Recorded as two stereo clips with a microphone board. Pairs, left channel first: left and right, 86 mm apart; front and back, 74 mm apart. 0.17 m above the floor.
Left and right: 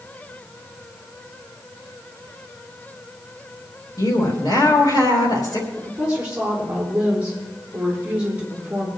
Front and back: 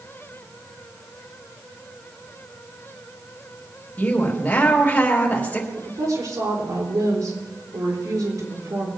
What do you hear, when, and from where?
4.0 s a woman speaking: 65° left, 3.5 m
5.8 s a woman speaking: 165° right, 6.5 m